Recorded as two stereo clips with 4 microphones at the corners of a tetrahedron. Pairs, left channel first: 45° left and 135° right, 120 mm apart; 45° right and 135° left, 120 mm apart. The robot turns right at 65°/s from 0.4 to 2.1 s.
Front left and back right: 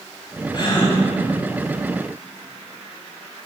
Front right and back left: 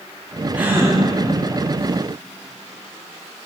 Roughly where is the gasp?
Ahead left.